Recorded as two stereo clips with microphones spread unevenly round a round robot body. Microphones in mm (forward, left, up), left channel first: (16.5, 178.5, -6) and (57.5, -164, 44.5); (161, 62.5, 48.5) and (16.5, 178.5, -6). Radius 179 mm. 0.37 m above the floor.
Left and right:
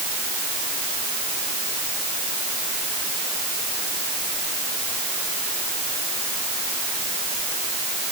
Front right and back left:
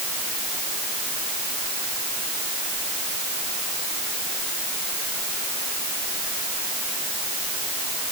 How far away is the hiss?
No hiss in this recording.